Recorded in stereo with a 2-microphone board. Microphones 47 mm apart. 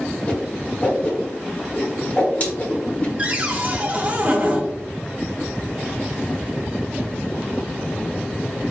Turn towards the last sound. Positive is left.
turn(degrees=-35)  # may be behind; listen again after turning